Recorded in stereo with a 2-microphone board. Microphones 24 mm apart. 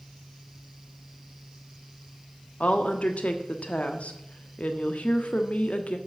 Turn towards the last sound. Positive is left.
turn(degrees=65)  # may be behind; listen again after turning